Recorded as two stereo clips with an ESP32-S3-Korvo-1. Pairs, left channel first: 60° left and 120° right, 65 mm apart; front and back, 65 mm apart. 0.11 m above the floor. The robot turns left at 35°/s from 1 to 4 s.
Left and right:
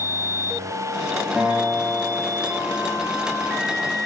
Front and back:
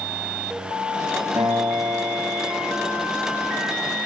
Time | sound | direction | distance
1.4 | a guitar | 165° left | 10 m